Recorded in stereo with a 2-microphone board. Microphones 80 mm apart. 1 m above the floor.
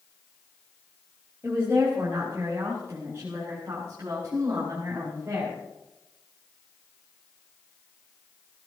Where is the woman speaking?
35° right (ahead or behind), 5.5 m; by 5.6 s 40° right (ahead or behind), 8.5 m.